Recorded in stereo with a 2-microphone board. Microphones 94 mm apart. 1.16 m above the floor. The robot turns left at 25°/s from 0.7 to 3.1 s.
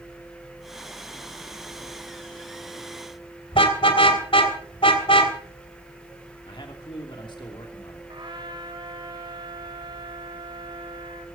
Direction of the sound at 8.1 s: 55° right (ahead or behind).